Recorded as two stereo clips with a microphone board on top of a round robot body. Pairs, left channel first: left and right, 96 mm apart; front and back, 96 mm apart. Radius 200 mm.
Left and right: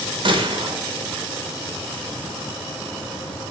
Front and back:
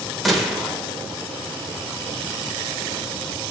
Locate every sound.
0.2 s a gunshot: 90° right, 0.9 m